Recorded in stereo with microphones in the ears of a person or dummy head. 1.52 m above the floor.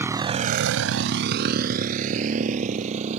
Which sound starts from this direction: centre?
A motorcycle, at 0.0 s.